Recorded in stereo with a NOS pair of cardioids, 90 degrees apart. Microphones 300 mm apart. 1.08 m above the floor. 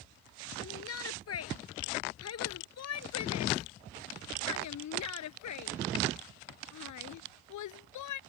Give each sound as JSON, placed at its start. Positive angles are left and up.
{"t": 0.6, "sound": "a shout", "azimuth_deg": 50}